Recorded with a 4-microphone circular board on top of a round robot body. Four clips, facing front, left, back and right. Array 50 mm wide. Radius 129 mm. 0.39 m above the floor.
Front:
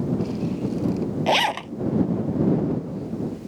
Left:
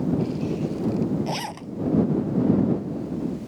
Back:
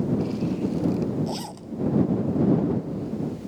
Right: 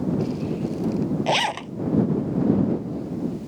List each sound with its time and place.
1.3 s a zipper: 30° right